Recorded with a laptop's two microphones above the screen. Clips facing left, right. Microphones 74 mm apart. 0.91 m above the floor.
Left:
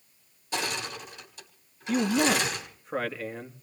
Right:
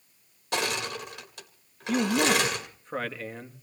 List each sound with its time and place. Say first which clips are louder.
0.5 s crushing: right 3 dB; 70° right (ahead or behind), 2.5 m
1.9 s a man speaking: even; 5° left (ahead or behind), 1.4 m